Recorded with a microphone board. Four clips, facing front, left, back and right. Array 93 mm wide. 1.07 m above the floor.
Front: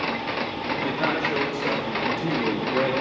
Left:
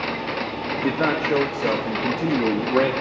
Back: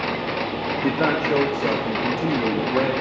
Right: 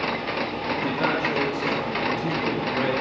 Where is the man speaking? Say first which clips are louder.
Left 3 dB, back 4 dB; 145° left, 1.6 m; by 2.9 s 105° left, 2 m.